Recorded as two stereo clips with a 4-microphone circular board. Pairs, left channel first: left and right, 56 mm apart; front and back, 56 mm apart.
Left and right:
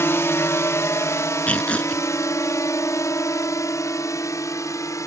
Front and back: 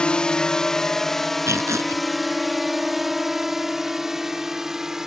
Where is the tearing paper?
155° left.